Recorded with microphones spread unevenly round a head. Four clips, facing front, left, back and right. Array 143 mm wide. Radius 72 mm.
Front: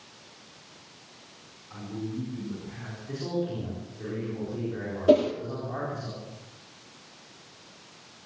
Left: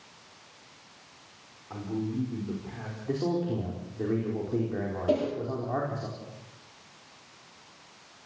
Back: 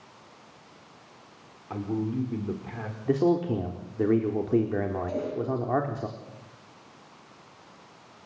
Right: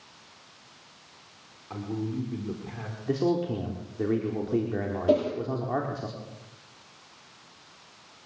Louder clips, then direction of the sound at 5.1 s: Right 4 dB, front 11 dB; 10° right.